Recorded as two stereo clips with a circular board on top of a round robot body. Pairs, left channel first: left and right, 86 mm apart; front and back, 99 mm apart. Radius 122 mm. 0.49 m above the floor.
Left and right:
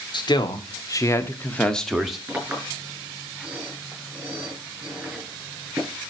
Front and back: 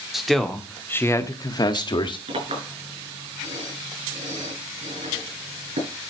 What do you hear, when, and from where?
0.1 s a man speaking: 95° left, 2 m; by 2.2 s 5° right, 2 m
2.3 s a clink: 160° right, 6.5 m